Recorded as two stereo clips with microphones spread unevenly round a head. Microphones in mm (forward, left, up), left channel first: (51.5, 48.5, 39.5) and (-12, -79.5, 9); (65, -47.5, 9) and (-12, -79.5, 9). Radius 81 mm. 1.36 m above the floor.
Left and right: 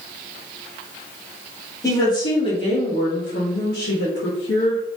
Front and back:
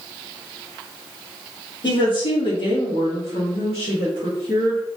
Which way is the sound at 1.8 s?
Straight ahead.